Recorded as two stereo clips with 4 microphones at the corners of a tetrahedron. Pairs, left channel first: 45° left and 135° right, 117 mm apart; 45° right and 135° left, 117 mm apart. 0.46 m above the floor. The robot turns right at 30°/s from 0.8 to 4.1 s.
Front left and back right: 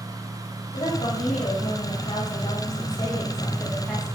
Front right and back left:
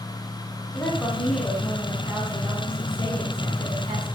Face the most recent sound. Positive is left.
turn(degrees=130)